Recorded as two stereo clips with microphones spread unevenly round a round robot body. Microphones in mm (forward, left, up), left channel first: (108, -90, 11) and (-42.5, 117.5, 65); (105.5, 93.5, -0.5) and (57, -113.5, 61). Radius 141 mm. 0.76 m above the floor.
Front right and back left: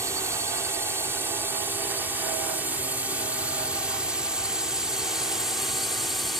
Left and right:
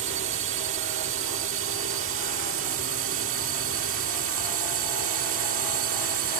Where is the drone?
150° right; by 6.4 s 135° right.